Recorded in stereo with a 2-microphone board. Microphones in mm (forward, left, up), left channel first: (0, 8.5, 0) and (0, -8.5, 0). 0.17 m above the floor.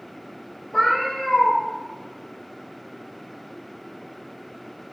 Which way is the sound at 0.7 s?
35° left (ahead or behind).